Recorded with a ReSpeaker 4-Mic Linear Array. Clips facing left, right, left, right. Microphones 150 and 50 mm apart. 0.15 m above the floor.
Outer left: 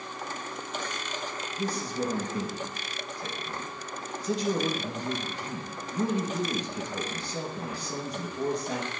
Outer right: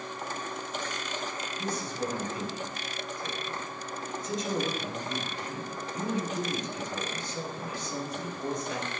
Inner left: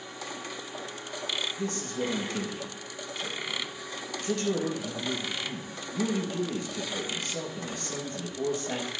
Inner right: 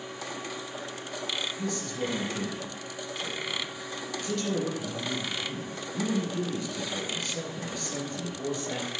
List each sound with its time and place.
1.6 s a man speaking: 35° left (ahead or behind), 2.5 m